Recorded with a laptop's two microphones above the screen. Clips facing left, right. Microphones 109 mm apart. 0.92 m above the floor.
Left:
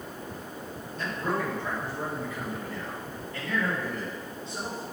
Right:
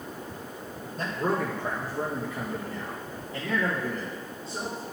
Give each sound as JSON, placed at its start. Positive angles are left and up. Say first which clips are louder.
{"t": 1.0, "sound": "a man speaking", "louder": "right 2 dB", "side_deg": -40, "distance_m": 1.2}